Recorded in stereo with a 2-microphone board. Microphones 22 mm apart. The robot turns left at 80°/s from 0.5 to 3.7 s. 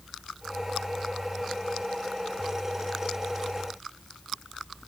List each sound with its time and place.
Only background noise.